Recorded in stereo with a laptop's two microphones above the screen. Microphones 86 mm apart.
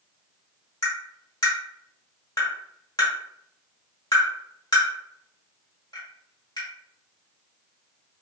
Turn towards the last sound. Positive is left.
turn(degrees=50)  # may be behind; listen again after turning